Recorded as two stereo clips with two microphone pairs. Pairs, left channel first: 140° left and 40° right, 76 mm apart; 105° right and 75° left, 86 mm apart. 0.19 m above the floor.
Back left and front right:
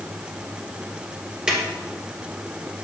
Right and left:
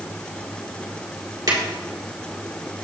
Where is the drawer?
40° left, 2 m.